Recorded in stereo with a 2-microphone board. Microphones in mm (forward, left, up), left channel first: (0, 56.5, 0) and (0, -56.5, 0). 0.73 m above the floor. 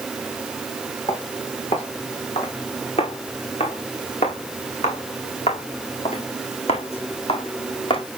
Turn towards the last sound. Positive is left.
turn(degrees=50)  # may be behind; listen again after turning